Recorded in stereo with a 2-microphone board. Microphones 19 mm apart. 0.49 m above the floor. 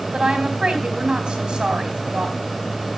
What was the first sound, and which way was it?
A woman speaking, 50° right (ahead or behind).